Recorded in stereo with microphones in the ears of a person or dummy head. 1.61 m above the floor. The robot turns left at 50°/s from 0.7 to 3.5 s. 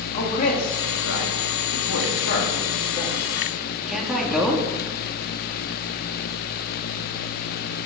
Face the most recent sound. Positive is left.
turn(degrees=0)  # may be behind; listen again after turning